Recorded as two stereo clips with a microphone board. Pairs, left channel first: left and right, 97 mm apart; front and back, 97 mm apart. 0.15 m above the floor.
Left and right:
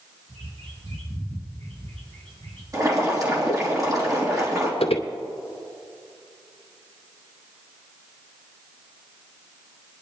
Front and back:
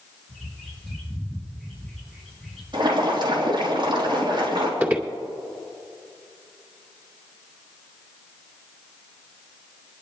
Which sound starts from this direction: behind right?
Boiling, at 2.7 s.